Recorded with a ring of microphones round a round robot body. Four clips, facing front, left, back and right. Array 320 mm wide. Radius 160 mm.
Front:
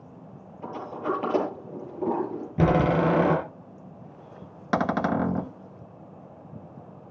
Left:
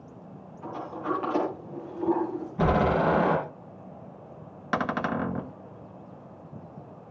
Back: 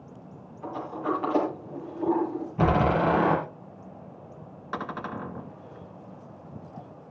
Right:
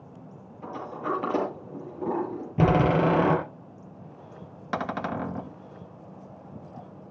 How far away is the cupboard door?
About 0.6 m.